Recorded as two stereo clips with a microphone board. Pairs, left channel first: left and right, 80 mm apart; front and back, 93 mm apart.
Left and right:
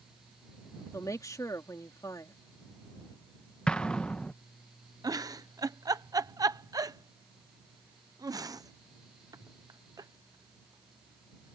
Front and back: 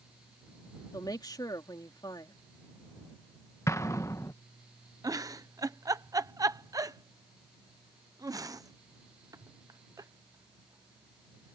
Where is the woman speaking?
45° left.